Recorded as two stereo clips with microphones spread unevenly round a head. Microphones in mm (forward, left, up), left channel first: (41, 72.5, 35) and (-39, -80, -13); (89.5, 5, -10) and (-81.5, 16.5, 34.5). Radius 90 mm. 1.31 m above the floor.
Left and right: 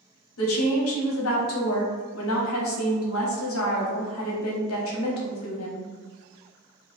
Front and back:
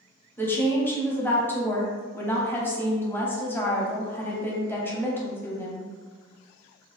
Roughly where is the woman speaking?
Ahead left.